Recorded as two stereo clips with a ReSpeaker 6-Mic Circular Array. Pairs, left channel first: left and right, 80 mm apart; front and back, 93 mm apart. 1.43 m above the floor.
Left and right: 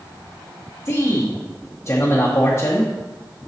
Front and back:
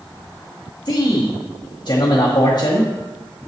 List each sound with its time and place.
0.8 s a man speaking: 35° left, 1.0 m